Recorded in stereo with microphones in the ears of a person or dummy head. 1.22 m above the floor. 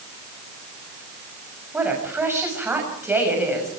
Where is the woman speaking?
10° right (ahead or behind), 6 m.